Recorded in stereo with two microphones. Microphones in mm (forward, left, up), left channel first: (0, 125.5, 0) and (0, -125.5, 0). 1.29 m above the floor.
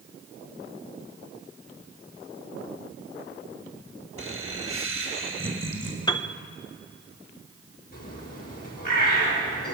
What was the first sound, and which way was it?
Laughter, 55° right (ahead or behind).